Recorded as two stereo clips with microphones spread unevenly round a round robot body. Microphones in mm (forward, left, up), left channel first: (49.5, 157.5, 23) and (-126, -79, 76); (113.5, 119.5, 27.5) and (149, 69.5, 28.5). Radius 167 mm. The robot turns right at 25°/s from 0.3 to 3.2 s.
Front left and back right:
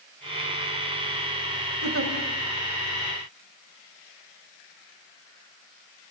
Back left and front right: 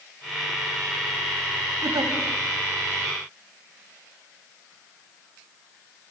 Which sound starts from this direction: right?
A giggle, at 1.8 s.